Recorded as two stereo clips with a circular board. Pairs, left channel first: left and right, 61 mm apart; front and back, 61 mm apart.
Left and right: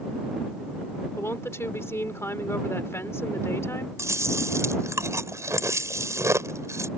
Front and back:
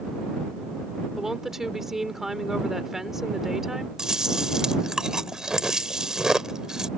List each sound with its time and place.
1.2 s a woman speaking: 100° left
4.0 s chewing: 105° right